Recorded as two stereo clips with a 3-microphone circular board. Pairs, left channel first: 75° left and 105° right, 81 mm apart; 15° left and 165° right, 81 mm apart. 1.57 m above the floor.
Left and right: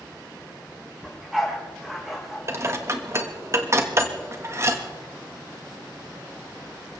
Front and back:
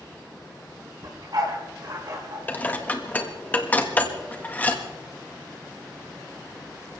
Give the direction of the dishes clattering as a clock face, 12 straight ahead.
2 o'clock.